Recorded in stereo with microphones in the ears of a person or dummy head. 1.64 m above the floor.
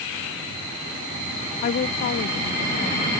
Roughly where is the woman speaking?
Left.